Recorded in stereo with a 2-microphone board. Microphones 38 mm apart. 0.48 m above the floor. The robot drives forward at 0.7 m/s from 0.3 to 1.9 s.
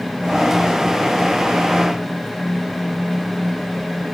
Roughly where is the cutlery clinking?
I don't hear cutlery clinking.